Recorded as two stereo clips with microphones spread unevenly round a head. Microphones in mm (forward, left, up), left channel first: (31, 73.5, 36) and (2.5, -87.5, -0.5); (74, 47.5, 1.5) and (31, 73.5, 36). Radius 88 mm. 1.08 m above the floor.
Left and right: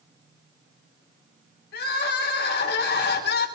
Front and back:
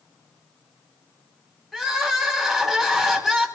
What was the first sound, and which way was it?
Crying, 50° left.